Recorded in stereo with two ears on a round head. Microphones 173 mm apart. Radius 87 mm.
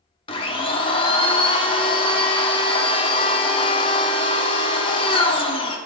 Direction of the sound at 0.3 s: 25° left (ahead or behind).